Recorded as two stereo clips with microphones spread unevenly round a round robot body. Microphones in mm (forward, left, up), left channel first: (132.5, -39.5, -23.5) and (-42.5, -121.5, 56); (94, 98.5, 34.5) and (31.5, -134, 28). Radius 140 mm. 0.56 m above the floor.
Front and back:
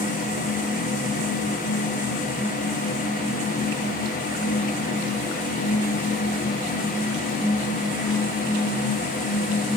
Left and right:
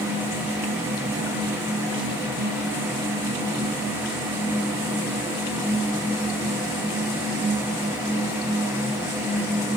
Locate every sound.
Only background noise.